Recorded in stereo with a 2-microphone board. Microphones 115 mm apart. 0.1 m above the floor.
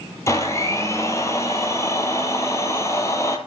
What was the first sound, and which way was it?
A blender, 25° left (ahead or behind).